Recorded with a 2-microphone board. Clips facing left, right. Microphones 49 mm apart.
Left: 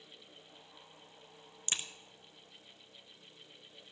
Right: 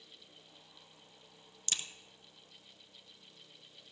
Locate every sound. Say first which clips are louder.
1.7 s a crack: left 1 dB; 25° left (ahead or behind), 0.9 m